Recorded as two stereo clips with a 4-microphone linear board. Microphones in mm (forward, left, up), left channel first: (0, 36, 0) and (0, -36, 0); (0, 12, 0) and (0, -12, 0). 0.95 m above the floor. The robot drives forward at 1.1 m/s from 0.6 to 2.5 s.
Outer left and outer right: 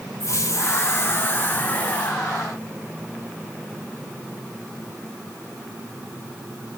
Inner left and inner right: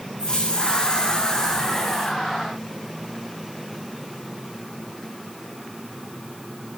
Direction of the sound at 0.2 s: 45° left (ahead or behind).